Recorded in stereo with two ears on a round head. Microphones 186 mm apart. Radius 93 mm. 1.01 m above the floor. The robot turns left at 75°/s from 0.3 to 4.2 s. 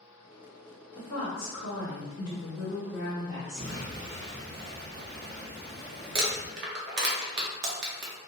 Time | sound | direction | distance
0.9 | a woman speaking | 160° left | 1.3 m
3.6 | an explosion | 45° right | 0.5 m
6.2 | crumpling | 55° right (ahead or behind) | 0.6 m